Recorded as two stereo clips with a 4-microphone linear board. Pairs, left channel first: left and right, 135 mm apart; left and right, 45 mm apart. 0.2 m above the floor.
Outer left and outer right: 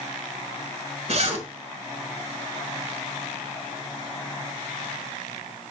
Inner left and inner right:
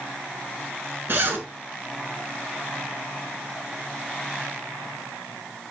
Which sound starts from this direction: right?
A zipper, at 1.1 s.